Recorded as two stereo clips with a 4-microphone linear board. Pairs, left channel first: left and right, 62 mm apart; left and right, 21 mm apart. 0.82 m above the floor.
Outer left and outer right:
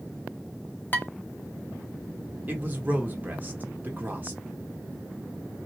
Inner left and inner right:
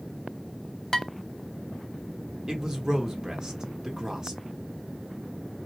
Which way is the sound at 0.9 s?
30° left (ahead or behind).